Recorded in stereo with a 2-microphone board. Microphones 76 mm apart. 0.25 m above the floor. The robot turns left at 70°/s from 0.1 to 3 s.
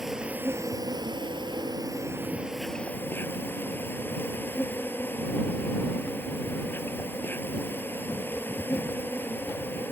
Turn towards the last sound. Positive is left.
turn(degrees=155)